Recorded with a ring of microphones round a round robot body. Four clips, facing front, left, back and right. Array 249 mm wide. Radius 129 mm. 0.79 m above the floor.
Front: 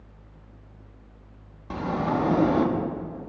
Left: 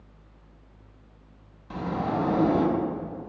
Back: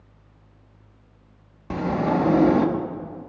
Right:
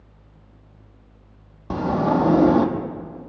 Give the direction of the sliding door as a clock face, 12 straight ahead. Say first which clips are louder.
Right 8 dB, back 3 dB; 4 o'clock.